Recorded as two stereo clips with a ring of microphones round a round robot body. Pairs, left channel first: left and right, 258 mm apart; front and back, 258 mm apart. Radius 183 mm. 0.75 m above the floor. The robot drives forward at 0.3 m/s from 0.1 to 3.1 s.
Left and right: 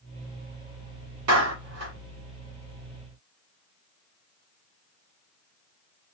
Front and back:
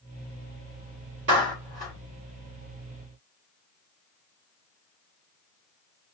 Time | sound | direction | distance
1.3 | a clap | 125° right | 1.8 m